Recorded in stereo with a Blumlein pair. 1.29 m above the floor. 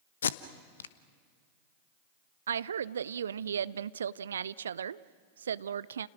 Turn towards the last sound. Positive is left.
turn(degrees=-65)